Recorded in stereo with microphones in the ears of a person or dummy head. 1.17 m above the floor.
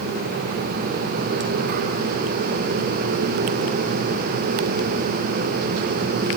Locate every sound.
Only background noise.